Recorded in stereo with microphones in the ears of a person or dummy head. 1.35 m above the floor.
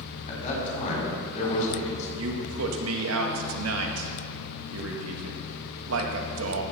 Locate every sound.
0.3 s a man speaking: 45° left (ahead or behind), 4.5 m
2.2 s a man speaking: 80° right, 1.7 m